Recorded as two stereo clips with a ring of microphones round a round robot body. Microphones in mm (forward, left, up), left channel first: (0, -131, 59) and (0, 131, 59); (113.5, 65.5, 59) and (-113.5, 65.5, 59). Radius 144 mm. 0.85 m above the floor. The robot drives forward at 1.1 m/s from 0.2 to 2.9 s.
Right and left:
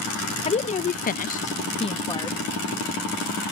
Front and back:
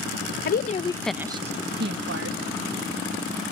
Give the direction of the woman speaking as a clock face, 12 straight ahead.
1 o'clock.